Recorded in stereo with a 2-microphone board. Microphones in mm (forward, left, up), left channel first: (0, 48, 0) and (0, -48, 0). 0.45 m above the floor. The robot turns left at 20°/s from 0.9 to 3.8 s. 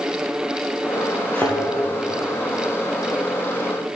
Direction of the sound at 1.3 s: 20° left (ahead or behind).